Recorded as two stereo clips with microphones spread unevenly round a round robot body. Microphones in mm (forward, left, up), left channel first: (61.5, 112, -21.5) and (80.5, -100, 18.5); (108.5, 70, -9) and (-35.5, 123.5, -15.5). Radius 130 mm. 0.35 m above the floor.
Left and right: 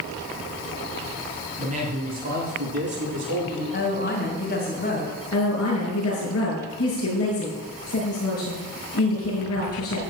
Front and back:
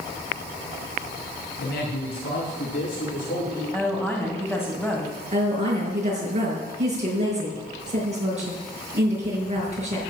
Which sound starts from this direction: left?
A woman speaking, at 3.7 s.